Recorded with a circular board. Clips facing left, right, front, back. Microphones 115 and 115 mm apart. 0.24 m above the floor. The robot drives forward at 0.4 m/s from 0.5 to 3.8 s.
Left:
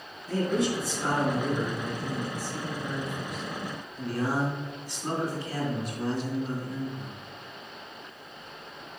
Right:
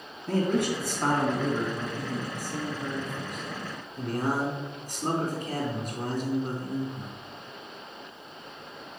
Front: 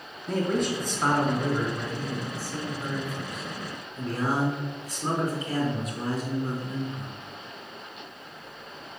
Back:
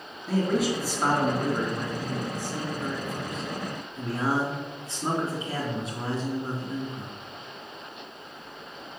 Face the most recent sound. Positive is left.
turn(degrees=-125)